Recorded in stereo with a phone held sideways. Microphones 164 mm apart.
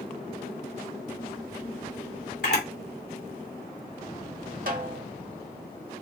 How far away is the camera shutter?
About 2.5 m.